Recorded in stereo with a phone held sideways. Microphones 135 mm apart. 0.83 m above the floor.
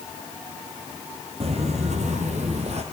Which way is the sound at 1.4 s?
50° right (ahead or behind).